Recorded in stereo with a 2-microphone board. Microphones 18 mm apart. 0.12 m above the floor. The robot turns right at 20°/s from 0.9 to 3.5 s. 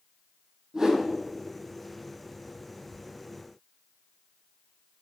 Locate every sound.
0.7 s a whoosh: 30° right (ahead or behind), 4.5 m; by 1.1 s 25° right (ahead or behind), 4.5 m